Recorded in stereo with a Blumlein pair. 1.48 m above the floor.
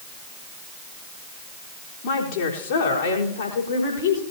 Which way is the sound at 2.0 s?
50° left.